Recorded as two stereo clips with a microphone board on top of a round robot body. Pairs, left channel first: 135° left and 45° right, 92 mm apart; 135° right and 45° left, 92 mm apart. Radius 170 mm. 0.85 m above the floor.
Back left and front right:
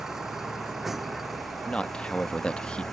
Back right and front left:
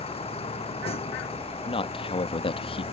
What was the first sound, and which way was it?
A vehicle, 130° right.